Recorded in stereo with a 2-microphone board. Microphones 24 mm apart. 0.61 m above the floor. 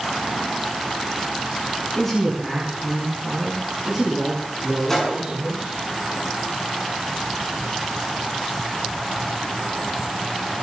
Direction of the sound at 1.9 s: 15° left (ahead or behind).